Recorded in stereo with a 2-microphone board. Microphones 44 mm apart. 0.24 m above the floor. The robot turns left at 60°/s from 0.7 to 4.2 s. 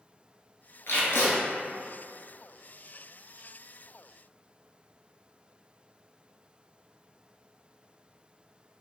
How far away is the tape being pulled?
About 0.9 m.